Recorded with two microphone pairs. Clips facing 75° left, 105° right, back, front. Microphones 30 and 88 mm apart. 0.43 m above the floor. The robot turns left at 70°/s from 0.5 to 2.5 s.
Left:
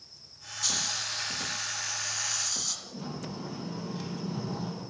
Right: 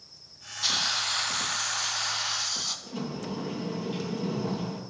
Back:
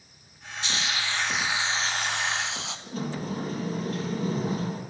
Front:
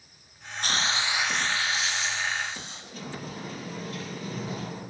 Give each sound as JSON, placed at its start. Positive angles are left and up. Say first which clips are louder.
{"t": 0.6, "sound": "a hiss", "louder": "right 5 dB, front 2 dB", "azimuth_deg": -40, "distance_m": 2.5}
{"t": 2.9, "sound": "a sliding door", "louder": "right 4 dB, back 7 dB", "azimuth_deg": -130, "distance_m": 7.0}